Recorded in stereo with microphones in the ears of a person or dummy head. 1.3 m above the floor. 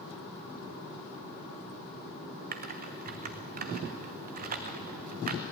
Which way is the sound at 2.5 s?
45° right (ahead or behind).